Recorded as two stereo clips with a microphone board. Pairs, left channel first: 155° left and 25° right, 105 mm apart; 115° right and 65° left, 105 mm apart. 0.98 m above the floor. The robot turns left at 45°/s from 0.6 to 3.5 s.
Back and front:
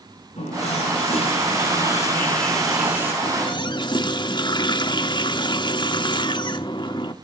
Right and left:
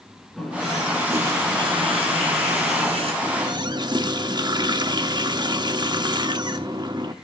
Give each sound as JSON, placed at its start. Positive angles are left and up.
{"t": 0.4, "sound": "a running tap", "azimuth_deg": 160, "distance_m": 7.0}
{"t": 3.2, "sound": "a running tap", "azimuth_deg": 125, "distance_m": 1.1}